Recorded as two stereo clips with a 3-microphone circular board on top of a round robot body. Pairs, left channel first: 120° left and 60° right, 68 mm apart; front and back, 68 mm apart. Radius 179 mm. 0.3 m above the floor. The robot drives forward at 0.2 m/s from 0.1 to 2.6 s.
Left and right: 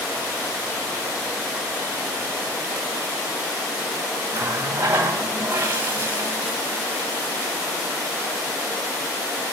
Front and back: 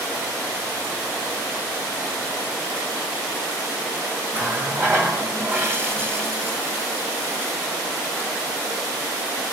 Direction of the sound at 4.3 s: 120° right.